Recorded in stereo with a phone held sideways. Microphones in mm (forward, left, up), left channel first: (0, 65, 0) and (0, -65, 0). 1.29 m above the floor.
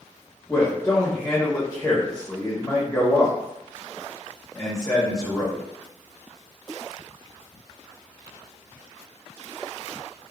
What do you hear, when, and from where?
0.5 s a man speaking: 25° left (ahead or behind), 1.3 m